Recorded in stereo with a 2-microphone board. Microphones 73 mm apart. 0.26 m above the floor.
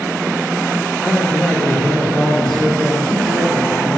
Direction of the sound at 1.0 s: 10° left (ahead or behind).